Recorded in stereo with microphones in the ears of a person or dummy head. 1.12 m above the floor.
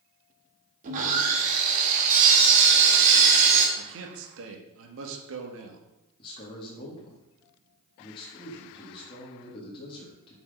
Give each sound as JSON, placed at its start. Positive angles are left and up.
{"t": 0.8, "sound": "sawing", "side_deg": -45, "distance_m": 2.0}
{"t": 3.8, "sound": "a man speaking", "side_deg": -70, "distance_m": 1.9}
{"t": 6.2, "sound": "a man speaking", "side_deg": 25, "distance_m": 1.9}